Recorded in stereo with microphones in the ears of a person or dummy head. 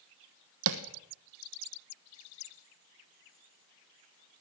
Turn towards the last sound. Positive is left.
turn(degrees=-75)  # may be behind; listen again after turning